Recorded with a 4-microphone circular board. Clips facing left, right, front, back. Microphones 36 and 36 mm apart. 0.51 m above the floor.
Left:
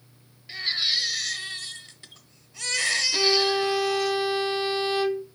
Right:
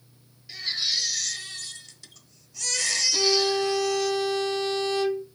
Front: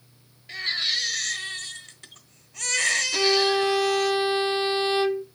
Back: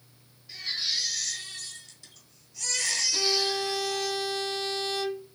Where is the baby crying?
30° left, 1.1 m.